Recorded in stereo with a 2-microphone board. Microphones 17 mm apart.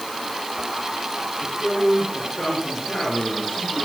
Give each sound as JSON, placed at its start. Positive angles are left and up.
{"t": 1.4, "sound": "a man speaking", "side_deg": 80, "distance_m": 9.5}